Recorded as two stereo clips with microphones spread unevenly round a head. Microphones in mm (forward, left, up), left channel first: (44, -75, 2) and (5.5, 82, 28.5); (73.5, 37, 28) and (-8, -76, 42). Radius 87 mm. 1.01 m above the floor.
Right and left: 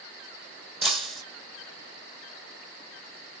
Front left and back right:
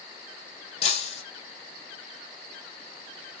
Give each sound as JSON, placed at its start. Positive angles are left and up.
{"t": 0.8, "sound": "breaking glass", "azimuth_deg": 25, "distance_m": 1.3}